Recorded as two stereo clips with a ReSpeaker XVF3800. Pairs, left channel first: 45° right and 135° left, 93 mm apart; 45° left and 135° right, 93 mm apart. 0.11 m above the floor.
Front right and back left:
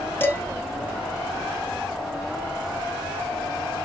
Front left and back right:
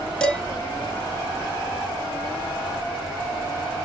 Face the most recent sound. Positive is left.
turn(degrees=-25)